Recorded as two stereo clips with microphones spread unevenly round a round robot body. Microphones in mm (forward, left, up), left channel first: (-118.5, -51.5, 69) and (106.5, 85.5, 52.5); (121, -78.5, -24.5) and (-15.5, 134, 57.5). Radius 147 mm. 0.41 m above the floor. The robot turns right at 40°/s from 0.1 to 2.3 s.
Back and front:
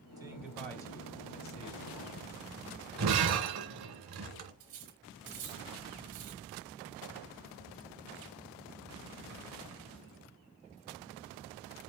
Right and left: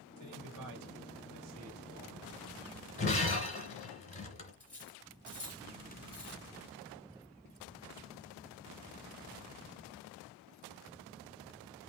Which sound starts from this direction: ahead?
Breaking glass, at 3.0 s.